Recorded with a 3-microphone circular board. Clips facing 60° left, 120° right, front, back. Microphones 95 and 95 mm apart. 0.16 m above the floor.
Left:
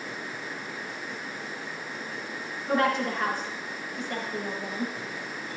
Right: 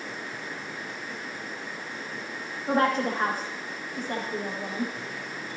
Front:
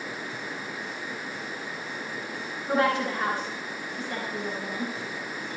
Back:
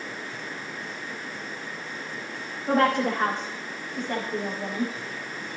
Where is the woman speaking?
165° right, 8.5 m.